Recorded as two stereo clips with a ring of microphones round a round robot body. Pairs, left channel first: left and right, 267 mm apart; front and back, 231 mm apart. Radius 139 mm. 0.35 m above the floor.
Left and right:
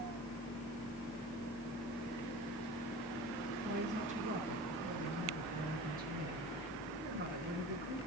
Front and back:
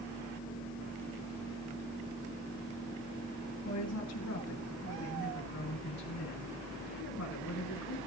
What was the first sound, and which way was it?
A woman speaking, 25° right.